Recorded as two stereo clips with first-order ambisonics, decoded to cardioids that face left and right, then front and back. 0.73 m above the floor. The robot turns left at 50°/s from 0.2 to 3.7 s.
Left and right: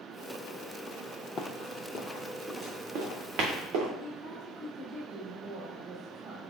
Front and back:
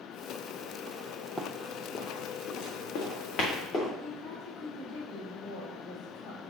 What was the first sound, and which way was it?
Running footsteps, 100° left.